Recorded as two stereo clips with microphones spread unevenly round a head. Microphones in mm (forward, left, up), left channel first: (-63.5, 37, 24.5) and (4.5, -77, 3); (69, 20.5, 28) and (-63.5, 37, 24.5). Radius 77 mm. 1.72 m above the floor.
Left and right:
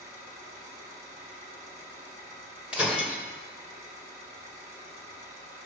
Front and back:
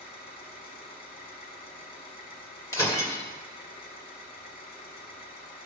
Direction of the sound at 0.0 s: 10° right.